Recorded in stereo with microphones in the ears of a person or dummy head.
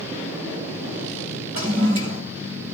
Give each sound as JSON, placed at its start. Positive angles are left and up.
{"t": 1.6, "sound": "a toilet flushing", "side_deg": -25, "distance_m": 4.5}